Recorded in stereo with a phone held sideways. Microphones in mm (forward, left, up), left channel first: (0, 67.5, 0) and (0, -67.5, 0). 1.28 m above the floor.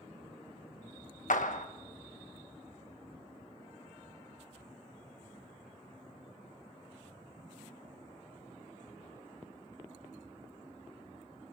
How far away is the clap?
About 1.2 m.